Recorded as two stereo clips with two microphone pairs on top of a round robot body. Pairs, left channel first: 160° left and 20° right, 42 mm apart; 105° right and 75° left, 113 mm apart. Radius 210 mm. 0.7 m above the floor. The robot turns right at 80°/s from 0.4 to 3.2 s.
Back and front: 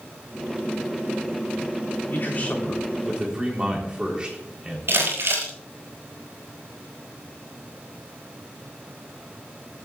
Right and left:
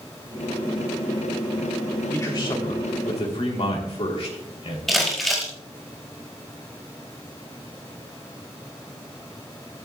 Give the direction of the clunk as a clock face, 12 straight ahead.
No clunk in this recording.